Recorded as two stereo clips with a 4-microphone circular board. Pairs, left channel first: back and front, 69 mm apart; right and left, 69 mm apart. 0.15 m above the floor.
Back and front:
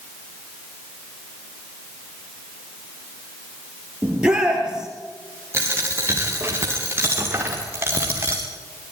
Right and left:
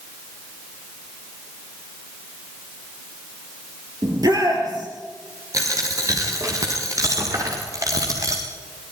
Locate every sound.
4.0 s a shout: 75° left, 3.5 m
5.5 s a dropped coin: 55° left, 5 m